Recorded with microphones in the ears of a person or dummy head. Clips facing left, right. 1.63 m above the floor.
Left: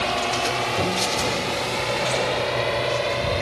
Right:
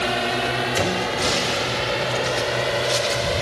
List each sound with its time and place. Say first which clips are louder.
0.0 s a drone: right 1 dB; 20° right (ahead or behind); by 3.4 s 10° right (ahead or behind)